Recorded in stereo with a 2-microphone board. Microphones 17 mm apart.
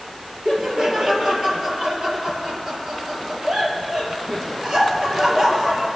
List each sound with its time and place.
0.5 s laughter: 45° right (ahead or behind), 3.5 m